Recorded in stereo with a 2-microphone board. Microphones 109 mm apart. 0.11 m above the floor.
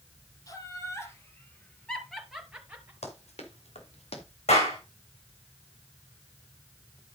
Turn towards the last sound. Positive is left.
turn(degrees=75)  # may be behind; listen again after turning